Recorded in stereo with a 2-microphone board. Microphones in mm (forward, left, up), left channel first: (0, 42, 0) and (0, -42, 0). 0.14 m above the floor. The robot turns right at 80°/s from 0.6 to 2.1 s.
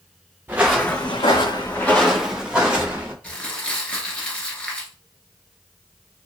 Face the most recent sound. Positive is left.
turn(degrees=15)  # may be behind; listen again after turning